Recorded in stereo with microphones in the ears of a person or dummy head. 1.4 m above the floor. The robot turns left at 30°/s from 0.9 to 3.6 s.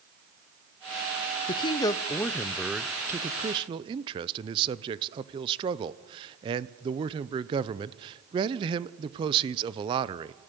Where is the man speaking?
35° left, 0.6 m; by 10.3 s 30° right, 0.6 m.